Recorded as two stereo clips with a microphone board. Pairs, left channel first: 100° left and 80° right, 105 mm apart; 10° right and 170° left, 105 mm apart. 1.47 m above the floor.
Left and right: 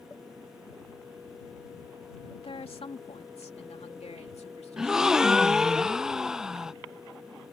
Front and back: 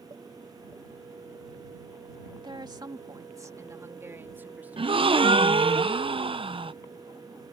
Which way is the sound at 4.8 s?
165° right.